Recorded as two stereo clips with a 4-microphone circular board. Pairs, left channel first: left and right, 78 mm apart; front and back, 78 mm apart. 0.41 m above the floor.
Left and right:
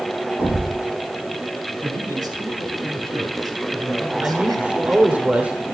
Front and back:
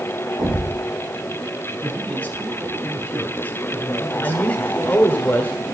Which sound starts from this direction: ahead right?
A man speaking, at 4.2 s.